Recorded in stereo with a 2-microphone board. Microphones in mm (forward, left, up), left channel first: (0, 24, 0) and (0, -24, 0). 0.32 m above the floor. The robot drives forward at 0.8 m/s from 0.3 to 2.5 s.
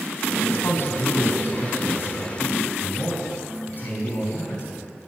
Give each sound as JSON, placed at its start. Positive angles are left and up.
{"t": 0.3, "sound": "a man speaking", "side_deg": 60, "distance_m": 2.5}